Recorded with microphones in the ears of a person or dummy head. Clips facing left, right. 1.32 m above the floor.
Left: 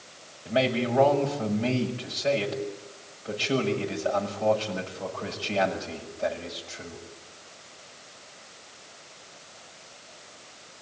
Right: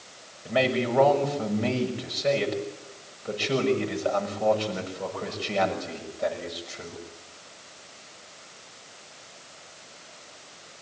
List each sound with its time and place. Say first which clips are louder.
0.5 s a man speaking: right 1 dB; 20° right (ahead or behind), 6.5 m